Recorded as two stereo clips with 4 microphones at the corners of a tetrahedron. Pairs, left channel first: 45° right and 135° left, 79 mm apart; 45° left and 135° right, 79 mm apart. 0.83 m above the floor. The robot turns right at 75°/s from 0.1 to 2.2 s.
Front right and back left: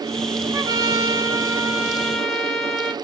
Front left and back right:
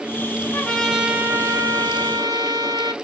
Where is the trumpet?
110° left, 1.2 m; by 2.9 s 125° right, 1.2 m.